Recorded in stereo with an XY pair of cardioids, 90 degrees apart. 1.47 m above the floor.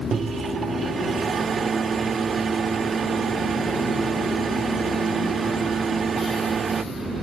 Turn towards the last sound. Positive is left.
turn(degrees=-50)